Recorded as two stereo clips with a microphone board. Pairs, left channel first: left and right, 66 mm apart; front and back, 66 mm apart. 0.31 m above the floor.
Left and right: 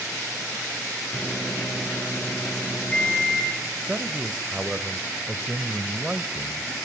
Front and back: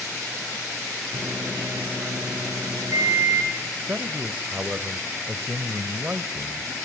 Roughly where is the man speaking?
Behind right.